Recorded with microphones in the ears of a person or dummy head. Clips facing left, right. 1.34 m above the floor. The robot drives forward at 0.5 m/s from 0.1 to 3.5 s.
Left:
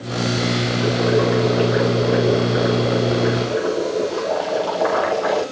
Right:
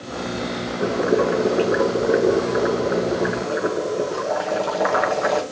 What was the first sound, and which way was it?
Boiling, 40° right (ahead or behind).